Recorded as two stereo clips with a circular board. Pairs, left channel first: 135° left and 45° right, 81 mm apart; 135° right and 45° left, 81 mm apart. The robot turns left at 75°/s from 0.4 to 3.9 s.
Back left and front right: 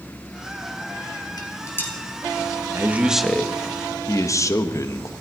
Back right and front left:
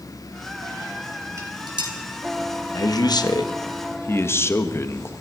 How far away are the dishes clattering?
About 3 m.